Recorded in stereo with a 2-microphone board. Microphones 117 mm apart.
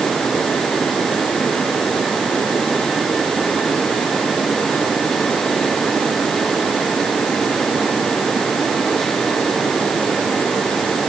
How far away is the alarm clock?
I don't hear an alarm clock.